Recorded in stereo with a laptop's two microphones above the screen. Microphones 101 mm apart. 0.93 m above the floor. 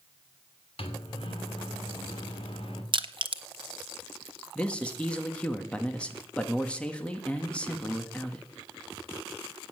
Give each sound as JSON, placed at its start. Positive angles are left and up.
{"t": 0.8, "sound": "a microwave", "side_deg": 65, "distance_m": 2.5}
{"t": 2.9, "sound": "crushing", "side_deg": -55, "distance_m": 1.0}
{"t": 4.5, "sound": "a man speaking", "side_deg": 10, "distance_m": 1.7}